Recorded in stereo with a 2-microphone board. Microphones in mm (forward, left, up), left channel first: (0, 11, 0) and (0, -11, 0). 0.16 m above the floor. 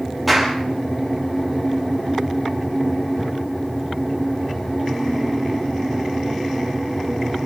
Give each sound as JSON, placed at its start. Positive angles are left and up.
{"t": 0.3, "sound": "a clap", "side_deg": -5, "distance_m": 3.5}